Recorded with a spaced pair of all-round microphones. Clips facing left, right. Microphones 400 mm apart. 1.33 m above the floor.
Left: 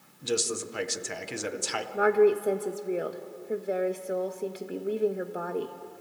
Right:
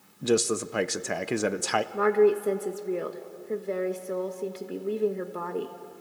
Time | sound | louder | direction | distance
0.2 | a man speaking | right 6 dB | 70° right (ahead or behind) | 0.7 m
1.9 | a woman speaking | even | 5° right (ahead or behind) | 1.1 m